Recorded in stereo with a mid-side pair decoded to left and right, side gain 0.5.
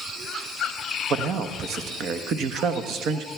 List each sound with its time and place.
1.1 s a man speaking: 65° right, 1.1 m